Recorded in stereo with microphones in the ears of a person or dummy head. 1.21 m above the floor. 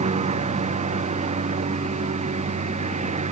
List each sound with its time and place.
0.0 s a lawn mower: 35° right (ahead or behind)